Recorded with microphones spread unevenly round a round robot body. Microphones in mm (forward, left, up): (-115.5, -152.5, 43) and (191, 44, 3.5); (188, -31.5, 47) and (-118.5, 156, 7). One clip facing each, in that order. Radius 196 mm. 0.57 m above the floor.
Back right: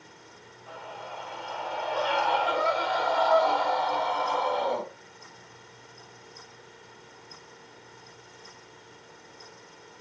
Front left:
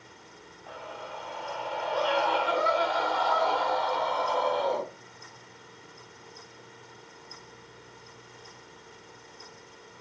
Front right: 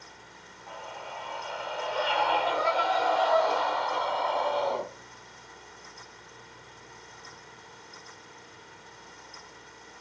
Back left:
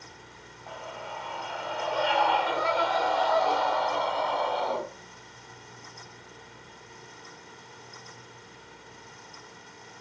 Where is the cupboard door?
No cupboard door in this recording.